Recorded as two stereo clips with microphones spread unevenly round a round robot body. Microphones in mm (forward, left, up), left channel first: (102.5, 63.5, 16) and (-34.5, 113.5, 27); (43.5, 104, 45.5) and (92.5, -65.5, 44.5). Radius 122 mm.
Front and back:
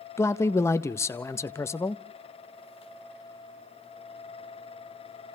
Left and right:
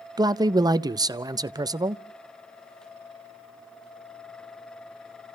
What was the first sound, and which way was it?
A man speaking, 45° right.